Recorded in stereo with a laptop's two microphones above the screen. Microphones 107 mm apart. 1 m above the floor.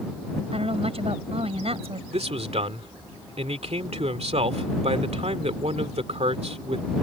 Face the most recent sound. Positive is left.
turn(degrees=-80)